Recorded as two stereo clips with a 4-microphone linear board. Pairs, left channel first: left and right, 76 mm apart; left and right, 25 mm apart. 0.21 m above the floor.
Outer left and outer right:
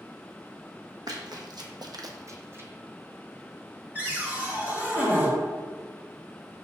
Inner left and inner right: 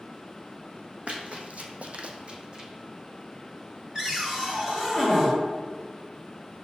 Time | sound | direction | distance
1.1 | running footsteps | 60° right (ahead or behind) | 0.7 m
4.0 | a cupboard door | 20° right (ahead or behind) | 1.3 m